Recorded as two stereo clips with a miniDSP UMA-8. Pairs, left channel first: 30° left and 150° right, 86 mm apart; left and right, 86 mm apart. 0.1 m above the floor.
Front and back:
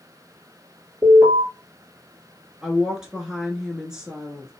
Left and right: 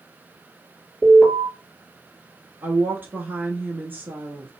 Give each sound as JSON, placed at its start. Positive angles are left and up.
{"t": 1.0, "sound": "an alarm", "azimuth_deg": -155, "distance_m": 2.5}
{"t": 2.6, "sound": "a woman speaking", "azimuth_deg": -80, "distance_m": 1.1}